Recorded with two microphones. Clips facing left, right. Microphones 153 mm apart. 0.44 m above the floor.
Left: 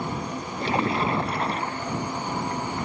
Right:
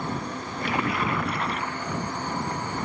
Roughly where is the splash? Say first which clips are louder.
Left 3 dB; left.